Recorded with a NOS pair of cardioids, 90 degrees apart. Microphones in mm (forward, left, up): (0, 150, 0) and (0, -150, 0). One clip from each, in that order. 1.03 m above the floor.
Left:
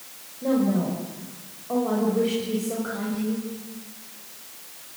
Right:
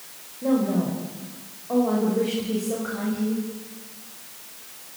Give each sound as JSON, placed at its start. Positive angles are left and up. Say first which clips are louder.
{"t": 0.4, "sound": "a woman speaking", "louder": "even", "azimuth_deg": 0, "distance_m": 5.5}